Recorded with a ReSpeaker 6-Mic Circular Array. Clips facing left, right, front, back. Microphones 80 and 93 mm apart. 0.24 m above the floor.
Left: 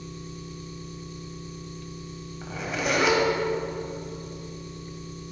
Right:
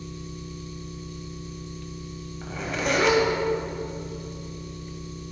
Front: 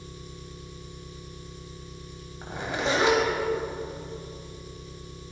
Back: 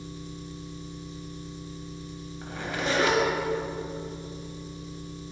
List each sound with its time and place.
0.0 s an engine running: 125° left, 1.5 m
2.4 s a zipper: 10° left, 1.2 m